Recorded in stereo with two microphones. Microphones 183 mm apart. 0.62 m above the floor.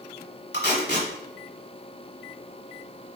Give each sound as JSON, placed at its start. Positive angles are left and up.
{"t": 0.5, "sound": "tape being pulled", "side_deg": 75, "distance_m": 1.1}